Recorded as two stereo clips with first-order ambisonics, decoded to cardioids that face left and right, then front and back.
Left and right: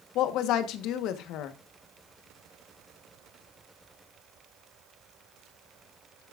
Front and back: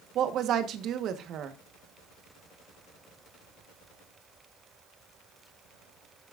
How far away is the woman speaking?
About 1.3 m.